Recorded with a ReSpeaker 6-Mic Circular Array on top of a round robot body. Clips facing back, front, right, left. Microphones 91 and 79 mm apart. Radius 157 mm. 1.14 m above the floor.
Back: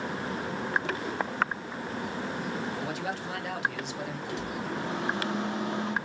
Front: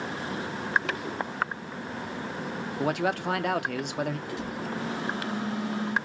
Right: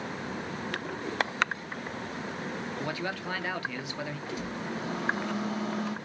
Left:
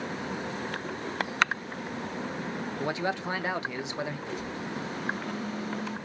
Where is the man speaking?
25° left, 1.1 m.